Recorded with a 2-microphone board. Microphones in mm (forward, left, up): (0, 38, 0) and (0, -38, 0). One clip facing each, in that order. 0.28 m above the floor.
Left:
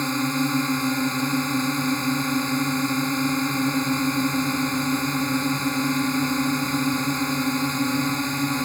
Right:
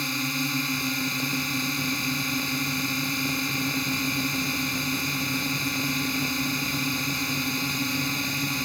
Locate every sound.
0.0 s a drone: 30° left (ahead or behind)